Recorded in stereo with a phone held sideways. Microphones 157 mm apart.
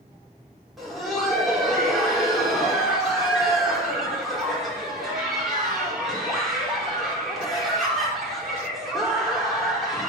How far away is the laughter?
About 3 m.